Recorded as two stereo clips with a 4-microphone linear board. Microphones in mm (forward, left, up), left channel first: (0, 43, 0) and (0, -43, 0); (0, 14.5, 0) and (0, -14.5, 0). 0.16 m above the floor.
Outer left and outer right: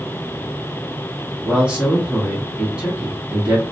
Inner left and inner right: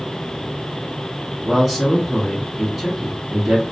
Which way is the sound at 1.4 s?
10° right (ahead or behind).